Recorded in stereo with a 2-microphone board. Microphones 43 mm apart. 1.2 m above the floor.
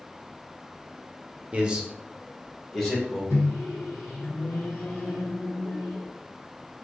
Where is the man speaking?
30° right (ahead or behind), 0.8 m; by 3.2 s 5° left (ahead or behind), 2 m.